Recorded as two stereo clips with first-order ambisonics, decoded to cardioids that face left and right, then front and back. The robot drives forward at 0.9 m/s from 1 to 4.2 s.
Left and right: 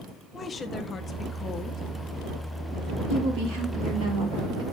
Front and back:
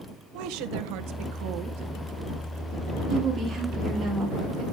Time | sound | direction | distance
0.3 | a woman speaking | 160° left | 1.3 m
3.1 | a woman speaking | 115° right | 5 m